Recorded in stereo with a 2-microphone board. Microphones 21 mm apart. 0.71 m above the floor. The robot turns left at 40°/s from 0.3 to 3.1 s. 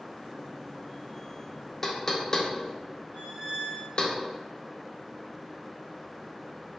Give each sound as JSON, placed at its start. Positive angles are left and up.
{"t": 1.8, "sound": "knocking", "side_deg": 15, "distance_m": 0.6}
{"t": 3.1, "sound": "a squeak", "side_deg": -60, "distance_m": 1.7}